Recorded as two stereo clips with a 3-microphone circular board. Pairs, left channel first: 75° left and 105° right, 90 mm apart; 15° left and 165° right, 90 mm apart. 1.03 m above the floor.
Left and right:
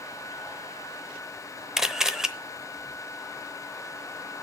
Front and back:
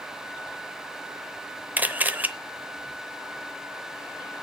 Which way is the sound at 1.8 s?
Straight behind.